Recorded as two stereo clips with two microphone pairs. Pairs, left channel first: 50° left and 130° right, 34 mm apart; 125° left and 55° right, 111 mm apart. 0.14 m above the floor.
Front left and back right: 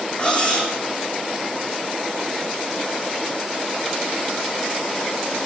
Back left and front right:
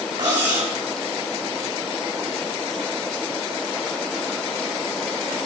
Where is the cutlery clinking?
5° right, 5.5 m.